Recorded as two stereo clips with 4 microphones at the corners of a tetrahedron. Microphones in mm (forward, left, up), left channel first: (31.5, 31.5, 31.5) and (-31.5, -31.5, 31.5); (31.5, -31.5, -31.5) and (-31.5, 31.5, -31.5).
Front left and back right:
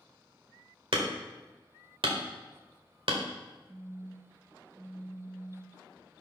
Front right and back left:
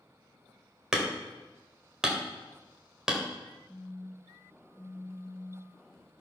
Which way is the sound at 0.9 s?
140° right.